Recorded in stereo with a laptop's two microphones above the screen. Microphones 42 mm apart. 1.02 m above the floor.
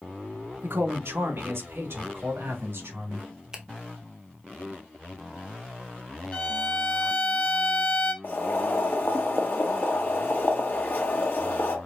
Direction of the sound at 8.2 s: 55° left (ahead or behind).